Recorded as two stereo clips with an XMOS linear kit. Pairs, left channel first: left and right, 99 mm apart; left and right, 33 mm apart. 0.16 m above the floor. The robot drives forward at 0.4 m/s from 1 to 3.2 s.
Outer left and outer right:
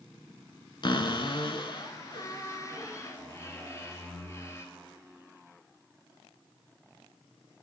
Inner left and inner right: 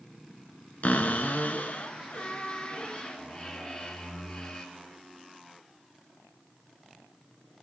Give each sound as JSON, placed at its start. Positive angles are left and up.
{"t": 0.8, "sound": "a cupboard door", "side_deg": 55, "distance_m": 0.5}